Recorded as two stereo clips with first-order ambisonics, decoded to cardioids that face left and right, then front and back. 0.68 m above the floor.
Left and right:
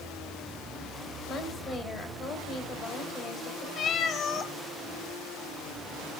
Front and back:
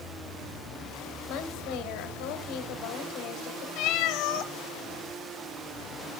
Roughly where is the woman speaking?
Ahead left.